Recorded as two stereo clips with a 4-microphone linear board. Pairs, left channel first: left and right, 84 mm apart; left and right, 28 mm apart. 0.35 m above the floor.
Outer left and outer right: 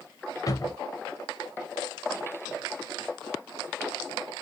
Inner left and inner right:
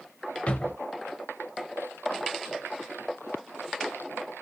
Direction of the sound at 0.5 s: 45° left (ahead or behind).